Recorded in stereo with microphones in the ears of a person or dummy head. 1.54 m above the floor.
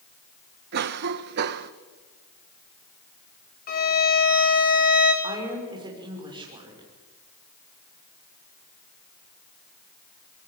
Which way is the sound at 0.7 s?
60° right (ahead or behind).